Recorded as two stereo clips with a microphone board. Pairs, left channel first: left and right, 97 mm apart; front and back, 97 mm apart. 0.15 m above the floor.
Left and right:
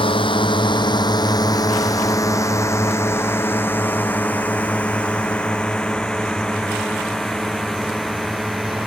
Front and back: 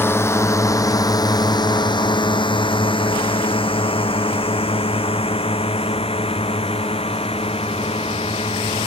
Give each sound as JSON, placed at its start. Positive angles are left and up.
{"t": 0.0, "sound": "a drone", "azimuth_deg": 65}